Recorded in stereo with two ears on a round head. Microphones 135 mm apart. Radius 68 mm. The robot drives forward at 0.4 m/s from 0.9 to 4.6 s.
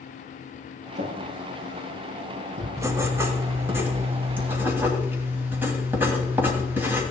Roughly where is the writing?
Right.